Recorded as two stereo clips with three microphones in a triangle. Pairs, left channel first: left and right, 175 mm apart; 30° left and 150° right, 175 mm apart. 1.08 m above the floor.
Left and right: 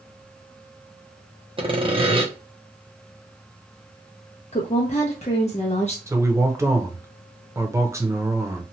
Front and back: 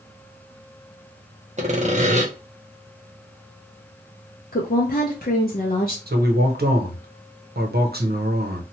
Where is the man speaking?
165° right, 0.7 m.